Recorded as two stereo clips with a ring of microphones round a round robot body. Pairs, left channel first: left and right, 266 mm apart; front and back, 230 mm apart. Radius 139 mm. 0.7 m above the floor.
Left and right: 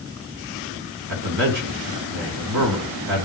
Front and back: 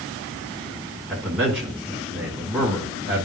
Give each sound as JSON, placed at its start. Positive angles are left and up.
{"t": 1.1, "sound": "a man speaking", "azimuth_deg": -95, "distance_m": 2.5}